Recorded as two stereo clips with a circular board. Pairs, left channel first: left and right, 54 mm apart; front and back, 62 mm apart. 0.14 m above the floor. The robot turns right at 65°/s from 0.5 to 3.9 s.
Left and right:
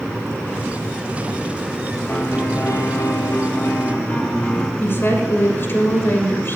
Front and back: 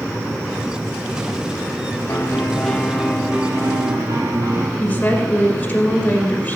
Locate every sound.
2.1 s a piano: 35° left, 1.5 m; by 4.7 s 155° left, 1.5 m
4.8 s a woman speaking: 60° left, 1.8 m